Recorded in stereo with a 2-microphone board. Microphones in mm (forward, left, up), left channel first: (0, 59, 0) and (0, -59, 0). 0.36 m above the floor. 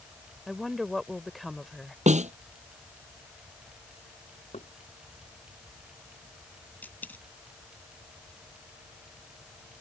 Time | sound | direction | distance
0.5 | a woman speaking | centre (ahead or behind) | ?
2.1 | a snare drum | 85° right | ?
4.5 | knocking | 70° left (ahead or behind) | ?
6.8 | a dropped coin | 15° left (ahead or behind) | ?